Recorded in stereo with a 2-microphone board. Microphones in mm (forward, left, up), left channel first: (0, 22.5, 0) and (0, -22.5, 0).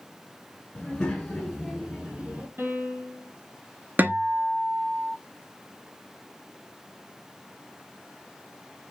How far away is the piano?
About 1.6 m.